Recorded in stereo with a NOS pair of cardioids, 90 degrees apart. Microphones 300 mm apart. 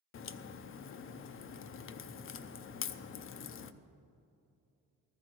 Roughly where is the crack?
Ahead left.